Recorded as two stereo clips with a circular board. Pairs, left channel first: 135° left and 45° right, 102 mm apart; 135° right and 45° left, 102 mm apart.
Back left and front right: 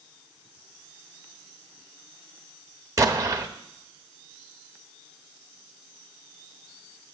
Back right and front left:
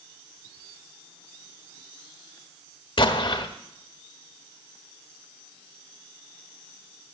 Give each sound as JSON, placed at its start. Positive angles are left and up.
{"t": 3.0, "sound": "an explosion", "azimuth_deg": -100, "distance_m": 1.1}